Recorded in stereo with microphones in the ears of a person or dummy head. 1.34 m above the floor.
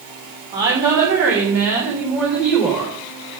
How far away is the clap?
No clap in this recording.